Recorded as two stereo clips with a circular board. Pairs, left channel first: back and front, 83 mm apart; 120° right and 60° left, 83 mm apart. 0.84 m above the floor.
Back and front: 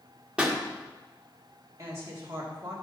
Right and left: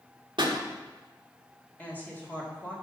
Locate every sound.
0.4 s a pop: 80° left, 1.6 m
1.8 s a woman speaking: 50° right, 2.5 m